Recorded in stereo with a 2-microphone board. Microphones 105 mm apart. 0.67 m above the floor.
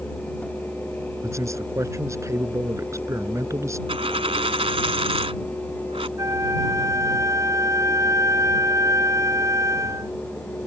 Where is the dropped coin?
70° right (ahead or behind).